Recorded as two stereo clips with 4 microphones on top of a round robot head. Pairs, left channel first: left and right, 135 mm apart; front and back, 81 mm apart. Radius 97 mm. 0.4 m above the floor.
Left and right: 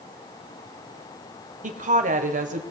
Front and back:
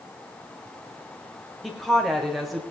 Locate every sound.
1.6 s a woman speaking: 90° right, 1.7 m